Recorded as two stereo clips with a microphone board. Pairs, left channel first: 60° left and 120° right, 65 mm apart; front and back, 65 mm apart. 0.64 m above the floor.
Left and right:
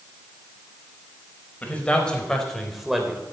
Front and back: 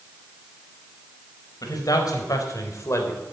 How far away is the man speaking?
About 4 m.